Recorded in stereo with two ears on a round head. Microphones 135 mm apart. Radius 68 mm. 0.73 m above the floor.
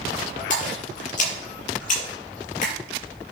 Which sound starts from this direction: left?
A splash, at 0.5 s.